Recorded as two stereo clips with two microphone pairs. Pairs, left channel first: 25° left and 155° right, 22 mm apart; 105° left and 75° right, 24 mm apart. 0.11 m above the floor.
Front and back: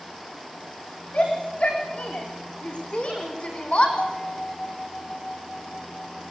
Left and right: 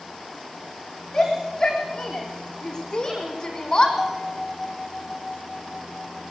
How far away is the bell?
About 4.5 m.